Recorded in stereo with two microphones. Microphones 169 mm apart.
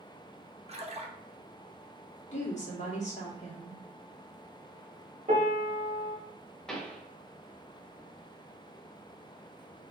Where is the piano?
45° right (ahead or behind), 1.0 m.